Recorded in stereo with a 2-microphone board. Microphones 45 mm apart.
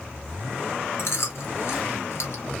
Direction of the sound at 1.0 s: 65° left (ahead or behind).